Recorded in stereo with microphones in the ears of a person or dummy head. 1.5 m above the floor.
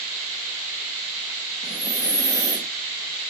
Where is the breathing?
20° right (ahead or behind), 1.4 m.